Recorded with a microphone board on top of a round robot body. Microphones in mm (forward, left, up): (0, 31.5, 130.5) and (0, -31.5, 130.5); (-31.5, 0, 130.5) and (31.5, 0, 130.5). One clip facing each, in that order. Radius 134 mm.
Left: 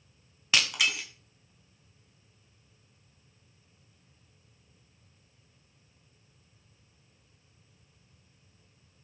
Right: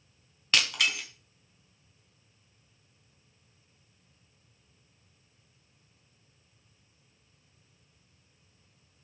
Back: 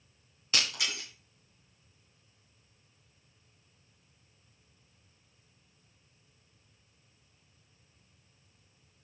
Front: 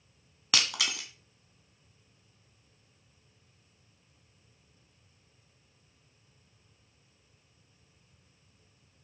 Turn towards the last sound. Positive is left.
turn(degrees=5)